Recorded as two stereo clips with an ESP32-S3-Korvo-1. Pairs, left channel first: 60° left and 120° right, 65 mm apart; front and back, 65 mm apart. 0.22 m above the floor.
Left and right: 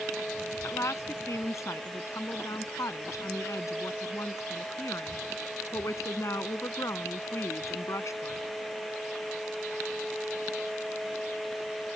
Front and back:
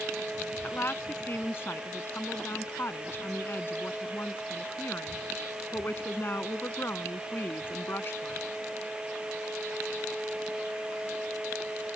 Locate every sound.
0.6 s a woman speaking: 40° left